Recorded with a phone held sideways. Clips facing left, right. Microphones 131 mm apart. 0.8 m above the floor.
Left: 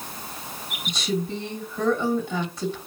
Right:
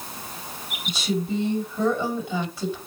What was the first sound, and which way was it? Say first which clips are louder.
A woman speaking: right 1 dB; 5° right (ahead or behind).